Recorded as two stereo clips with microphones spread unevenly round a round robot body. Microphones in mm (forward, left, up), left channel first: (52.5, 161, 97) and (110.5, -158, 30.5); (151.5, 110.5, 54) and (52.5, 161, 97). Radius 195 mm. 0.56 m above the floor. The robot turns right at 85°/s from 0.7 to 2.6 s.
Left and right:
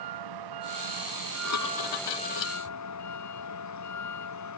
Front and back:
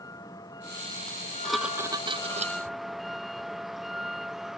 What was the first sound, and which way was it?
A vehicle, 100° right.